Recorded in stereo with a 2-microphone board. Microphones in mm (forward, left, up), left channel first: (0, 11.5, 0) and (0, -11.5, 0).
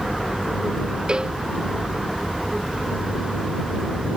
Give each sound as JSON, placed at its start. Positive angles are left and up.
{"t": 1.1, "sound": "a cowbell", "side_deg": -40}